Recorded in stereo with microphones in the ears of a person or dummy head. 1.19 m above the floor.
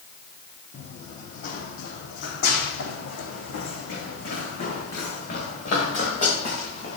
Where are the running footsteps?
40° left (ahead or behind), 3.5 m; by 7.0 s 50° left (ahead or behind), 7.5 m.